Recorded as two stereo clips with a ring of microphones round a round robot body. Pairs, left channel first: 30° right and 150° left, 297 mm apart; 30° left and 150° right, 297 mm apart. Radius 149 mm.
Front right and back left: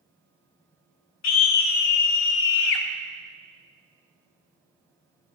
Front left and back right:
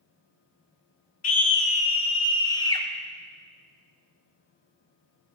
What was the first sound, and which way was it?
A scream, 25° right.